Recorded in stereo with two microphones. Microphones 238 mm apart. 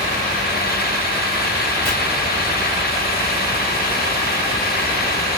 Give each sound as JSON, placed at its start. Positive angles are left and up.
{"t": 1.9, "sound": "chopping", "side_deg": 10, "distance_m": 3.0}